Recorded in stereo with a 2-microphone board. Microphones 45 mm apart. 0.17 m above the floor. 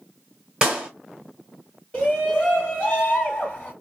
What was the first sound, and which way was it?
A clap, 15° right (ahead or behind).